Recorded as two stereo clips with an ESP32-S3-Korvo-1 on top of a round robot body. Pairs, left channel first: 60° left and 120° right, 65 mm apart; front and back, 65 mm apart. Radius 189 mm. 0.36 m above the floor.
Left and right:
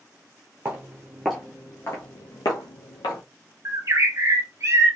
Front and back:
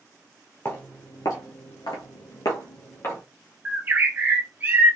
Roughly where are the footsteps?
Ahead right.